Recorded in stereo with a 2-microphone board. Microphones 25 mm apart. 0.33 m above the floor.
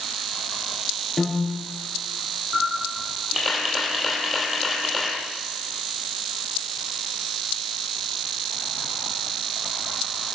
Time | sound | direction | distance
1.2 | a piano | centre (ahead or behind) | 5 m
2.5 | a camera shutter | 5° right (ahead or behind) | 6.5 m